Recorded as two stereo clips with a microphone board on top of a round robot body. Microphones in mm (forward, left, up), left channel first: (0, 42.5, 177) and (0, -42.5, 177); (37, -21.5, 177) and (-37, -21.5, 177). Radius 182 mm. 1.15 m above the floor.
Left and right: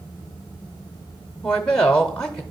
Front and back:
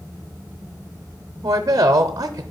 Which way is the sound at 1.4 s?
170° left.